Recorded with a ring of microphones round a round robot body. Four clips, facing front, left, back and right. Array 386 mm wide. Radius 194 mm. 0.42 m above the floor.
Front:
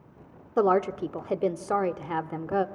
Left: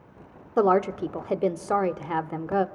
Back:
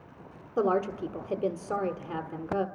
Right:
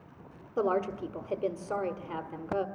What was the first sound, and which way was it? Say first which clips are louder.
A woman speaking: left 8 dB, front 4 dB; 60° left.